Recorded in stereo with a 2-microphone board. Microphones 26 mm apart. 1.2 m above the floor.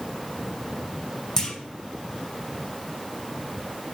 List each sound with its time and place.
1.4 s a clunk: 25° left (ahead or behind), 0.6 m